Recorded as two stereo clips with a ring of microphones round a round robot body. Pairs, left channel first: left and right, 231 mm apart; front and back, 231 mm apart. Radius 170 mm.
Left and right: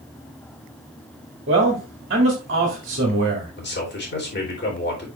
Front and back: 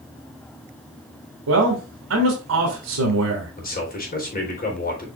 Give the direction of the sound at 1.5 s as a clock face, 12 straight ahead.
5 o'clock.